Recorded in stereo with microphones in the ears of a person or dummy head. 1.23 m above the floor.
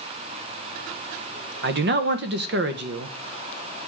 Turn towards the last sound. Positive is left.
turn(degrees=-50)  # may be behind; listen again after turning